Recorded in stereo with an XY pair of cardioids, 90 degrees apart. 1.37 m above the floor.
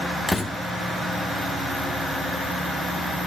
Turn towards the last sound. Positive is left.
turn(degrees=10)